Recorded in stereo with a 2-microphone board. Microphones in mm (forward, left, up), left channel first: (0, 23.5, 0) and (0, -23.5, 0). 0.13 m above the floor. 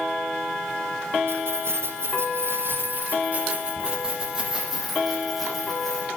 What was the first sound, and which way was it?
Keys jangling, 65° right (ahead or behind).